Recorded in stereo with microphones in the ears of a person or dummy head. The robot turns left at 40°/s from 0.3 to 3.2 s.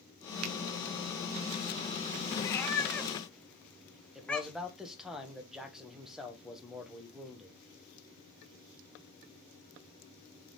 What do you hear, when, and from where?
0.4 s a finger snap: 85° right, 1.0 m
2.4 s a cat meowing: 15° left (ahead or behind), 0.7 m; by 4.8 s centre (ahead or behind), 0.7 m
4.2 s a man speaking: 5° right (ahead or behind), 1.3 m